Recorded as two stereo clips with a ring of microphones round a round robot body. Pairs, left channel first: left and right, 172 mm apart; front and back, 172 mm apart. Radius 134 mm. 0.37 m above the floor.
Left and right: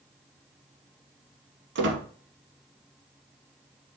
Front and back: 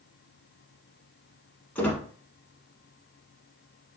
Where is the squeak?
85° right, 0.9 m.